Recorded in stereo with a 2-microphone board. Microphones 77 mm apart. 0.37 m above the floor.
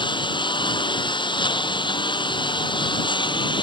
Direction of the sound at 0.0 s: 85° left.